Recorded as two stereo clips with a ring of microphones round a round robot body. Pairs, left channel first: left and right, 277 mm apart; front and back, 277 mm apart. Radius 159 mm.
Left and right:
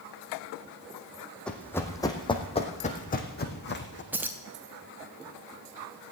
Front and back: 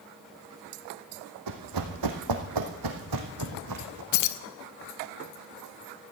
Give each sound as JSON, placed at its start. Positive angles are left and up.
{"t": 1.5, "sound": "running footsteps", "azimuth_deg": 175, "distance_m": 2.0}
{"t": 4.1, "sound": "keys jangling", "azimuth_deg": -5, "distance_m": 0.7}